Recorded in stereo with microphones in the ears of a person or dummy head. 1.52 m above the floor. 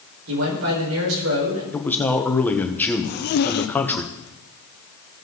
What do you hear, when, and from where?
0.3 s a man speaking: 85° right, 5 m
1.7 s a man speaking: 10° left (ahead or behind), 1.2 m
3.0 s a zipper: 55° left (ahead or behind), 0.7 m